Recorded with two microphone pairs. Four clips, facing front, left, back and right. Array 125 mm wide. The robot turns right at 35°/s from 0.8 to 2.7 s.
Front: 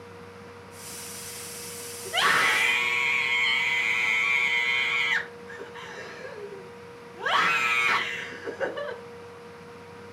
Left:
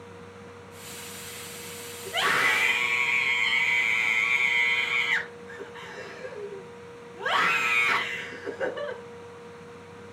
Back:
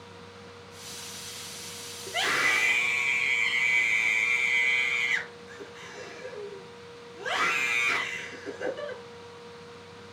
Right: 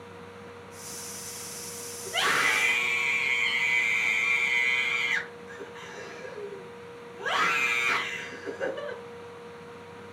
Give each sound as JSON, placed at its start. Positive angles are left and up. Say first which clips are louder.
{"t": 2.0, "sound": "a scream", "louder": "left 1 dB, front 5 dB", "azimuth_deg": 10, "distance_m": 4.0}